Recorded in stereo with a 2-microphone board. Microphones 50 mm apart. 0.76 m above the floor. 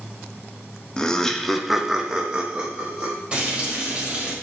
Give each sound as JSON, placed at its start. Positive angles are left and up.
{"t": 1.0, "sound": "laughter", "side_deg": 15, "distance_m": 0.8}
{"t": 3.3, "sound": "frying", "side_deg": -25, "distance_m": 2.0}